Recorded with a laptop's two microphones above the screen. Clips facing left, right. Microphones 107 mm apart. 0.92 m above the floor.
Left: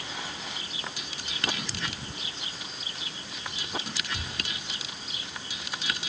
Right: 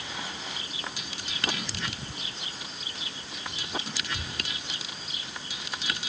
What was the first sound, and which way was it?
Only background noise.